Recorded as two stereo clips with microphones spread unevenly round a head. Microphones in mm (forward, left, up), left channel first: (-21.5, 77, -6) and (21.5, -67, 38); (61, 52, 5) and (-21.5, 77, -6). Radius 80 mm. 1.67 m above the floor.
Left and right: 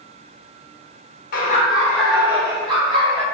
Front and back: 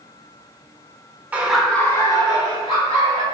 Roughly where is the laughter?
Left.